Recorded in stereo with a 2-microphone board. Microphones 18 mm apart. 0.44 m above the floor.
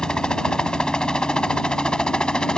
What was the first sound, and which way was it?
A helicopter, 55° left (ahead or behind).